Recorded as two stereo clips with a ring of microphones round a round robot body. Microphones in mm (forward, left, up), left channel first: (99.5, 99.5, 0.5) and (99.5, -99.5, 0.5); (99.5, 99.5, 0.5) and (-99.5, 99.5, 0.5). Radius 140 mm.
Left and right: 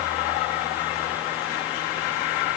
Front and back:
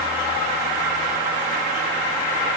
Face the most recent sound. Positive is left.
No sound to turn to.